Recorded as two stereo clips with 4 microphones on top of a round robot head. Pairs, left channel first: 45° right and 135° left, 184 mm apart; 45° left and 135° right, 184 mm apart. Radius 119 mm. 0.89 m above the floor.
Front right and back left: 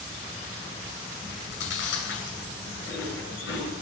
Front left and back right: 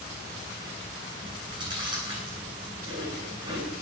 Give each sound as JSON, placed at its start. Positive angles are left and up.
{"t": 1.2, "sound": "chewing", "azimuth_deg": -65, "distance_m": 9.5}